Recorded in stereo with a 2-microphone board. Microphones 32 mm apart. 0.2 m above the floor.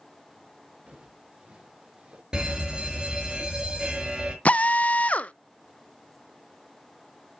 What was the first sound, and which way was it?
Footsteps, 30° right (ahead or behind).